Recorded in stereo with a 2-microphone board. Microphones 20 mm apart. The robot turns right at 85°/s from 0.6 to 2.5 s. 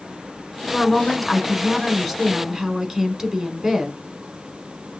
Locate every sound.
0.7 s a woman speaking: 20° left (ahead or behind), 1.1 m; by 4.0 s 15° right (ahead or behind), 1.1 m